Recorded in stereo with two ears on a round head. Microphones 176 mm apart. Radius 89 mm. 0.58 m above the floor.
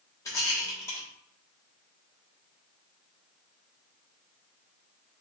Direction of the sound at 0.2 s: 15° left (ahead or behind).